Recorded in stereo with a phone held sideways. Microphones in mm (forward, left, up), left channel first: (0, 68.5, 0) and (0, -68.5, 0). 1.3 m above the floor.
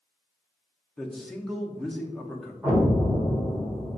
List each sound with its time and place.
1.0 s a man speaking: 5° left (ahead or behind), 0.7 m
2.6 s an explosion: centre (ahead or behind), 1.3 m